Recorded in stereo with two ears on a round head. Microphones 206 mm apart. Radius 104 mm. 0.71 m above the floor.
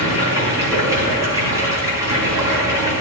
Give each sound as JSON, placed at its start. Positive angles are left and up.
{"t": 0.0, "sound": "running water", "side_deg": -15, "distance_m": 6.5}